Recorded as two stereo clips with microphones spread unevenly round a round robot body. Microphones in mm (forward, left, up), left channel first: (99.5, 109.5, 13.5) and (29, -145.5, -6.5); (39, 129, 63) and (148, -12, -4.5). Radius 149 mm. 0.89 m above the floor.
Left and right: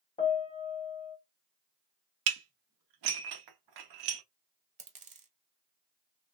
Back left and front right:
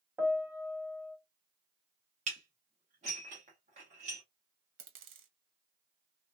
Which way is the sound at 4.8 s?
45° right.